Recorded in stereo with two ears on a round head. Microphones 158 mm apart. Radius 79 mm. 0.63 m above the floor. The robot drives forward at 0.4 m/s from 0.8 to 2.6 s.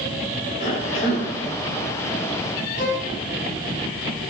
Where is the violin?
45° left (ahead or behind), 4.5 m.